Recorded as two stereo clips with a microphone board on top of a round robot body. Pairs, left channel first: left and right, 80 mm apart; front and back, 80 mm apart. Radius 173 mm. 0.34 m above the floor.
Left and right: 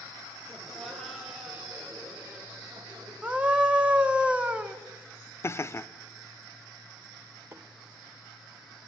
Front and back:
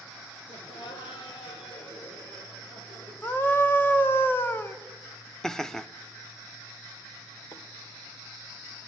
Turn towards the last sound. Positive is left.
turn(degrees=-35)